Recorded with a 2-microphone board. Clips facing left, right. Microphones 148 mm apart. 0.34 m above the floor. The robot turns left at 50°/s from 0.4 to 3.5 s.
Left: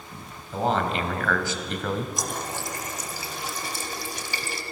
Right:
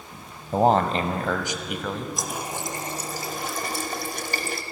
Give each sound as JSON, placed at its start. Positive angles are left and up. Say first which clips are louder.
{"t": 0.5, "sound": "a man speaking", "louder": "right 5 dB", "azimuth_deg": -110, "distance_m": 1.5}
{"t": 2.2, "sound": "a running tap", "louder": "even", "azimuth_deg": 0, "distance_m": 1.2}